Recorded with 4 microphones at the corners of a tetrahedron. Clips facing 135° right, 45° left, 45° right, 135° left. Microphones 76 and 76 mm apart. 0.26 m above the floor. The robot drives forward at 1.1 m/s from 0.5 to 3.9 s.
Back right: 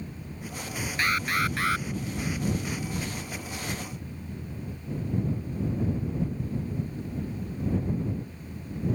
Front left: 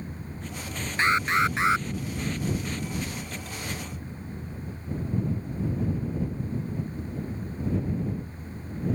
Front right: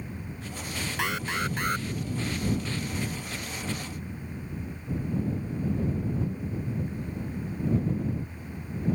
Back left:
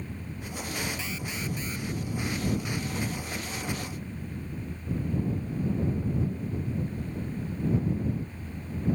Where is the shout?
I don't hear a shout.